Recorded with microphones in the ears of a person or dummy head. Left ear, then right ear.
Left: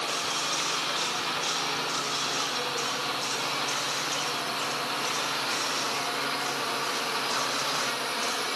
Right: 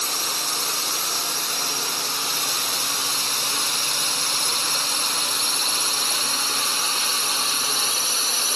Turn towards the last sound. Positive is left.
turn(degrees=-75)  # may be behind; listen again after turning